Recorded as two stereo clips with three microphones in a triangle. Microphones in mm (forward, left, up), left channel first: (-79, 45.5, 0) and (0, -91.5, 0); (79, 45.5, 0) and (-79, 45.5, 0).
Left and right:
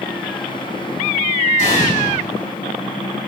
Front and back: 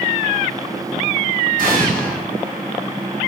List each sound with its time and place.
1.6 s an explosion: 155° left, 6.5 m